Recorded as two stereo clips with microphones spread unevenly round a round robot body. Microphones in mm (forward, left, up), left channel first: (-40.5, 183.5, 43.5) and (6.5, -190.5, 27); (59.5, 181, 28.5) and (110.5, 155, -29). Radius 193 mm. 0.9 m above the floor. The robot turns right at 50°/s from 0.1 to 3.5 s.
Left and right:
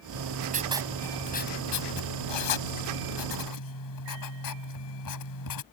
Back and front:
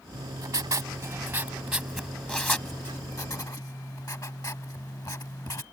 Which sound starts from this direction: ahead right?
Writing, at 0.1 s.